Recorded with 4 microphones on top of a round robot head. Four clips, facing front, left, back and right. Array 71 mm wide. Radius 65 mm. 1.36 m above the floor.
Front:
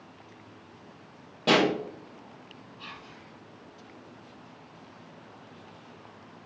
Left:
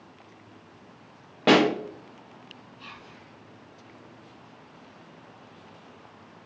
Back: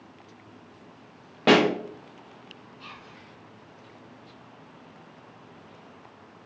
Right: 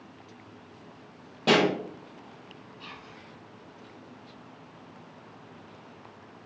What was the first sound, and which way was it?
A pop, 140° left.